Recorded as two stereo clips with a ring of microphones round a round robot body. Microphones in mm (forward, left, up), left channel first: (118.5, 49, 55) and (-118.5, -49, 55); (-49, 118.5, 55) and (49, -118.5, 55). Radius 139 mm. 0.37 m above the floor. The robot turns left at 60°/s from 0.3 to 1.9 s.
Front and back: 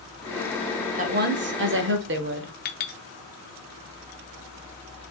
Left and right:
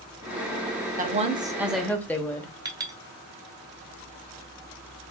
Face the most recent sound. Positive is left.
turn(degrees=0)